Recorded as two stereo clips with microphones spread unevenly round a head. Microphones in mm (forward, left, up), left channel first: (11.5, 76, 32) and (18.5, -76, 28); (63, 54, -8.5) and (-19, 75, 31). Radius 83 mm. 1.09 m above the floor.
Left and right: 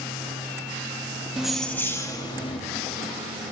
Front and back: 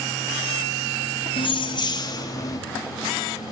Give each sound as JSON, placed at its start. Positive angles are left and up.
{"t": 1.4, "sound": "keys jangling", "azimuth_deg": -5, "distance_m": 1.3}